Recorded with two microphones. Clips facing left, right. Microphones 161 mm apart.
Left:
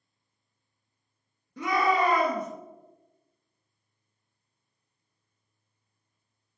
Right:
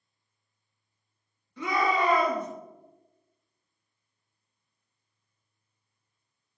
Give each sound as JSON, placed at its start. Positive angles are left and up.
{"t": 1.6, "sound": "a shout", "side_deg": 45, "distance_m": 1.4}